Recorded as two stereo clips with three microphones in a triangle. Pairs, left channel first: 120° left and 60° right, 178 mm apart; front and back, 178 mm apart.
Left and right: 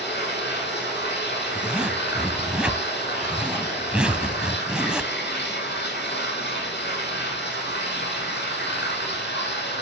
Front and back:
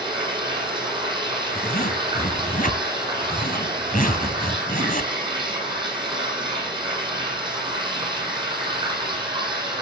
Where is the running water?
115° left, 9 m.